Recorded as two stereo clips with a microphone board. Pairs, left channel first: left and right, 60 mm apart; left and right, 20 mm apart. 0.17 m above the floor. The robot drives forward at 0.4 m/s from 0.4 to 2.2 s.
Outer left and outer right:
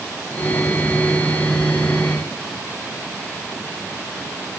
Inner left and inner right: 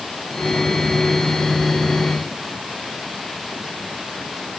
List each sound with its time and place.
Only background noise.